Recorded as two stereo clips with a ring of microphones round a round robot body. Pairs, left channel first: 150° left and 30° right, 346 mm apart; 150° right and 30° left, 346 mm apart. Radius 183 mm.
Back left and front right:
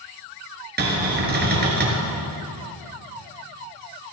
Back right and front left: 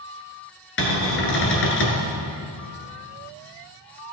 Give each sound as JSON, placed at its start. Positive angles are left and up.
{"t": 0.8, "sound": "a cupboard door", "azimuth_deg": -95, "distance_m": 2.0}